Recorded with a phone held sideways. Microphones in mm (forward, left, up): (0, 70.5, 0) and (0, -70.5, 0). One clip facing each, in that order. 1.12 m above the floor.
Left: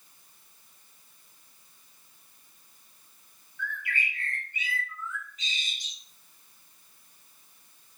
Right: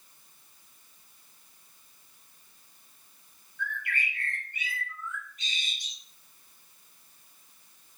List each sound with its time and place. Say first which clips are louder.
3.6 s a bird: even; 55° right (ahead or behind), 1.1 m